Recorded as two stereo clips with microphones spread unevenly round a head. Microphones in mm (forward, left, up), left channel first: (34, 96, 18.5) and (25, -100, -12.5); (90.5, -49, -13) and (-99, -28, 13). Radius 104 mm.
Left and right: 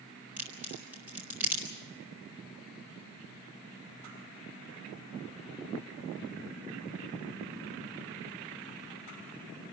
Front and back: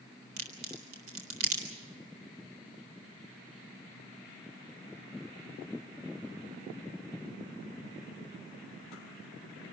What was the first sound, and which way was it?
A crack, 175° right.